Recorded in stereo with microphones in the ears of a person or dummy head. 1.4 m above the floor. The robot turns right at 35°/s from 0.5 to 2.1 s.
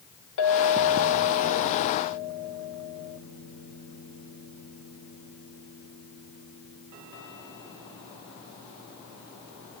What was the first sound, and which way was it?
A clink, 105° left.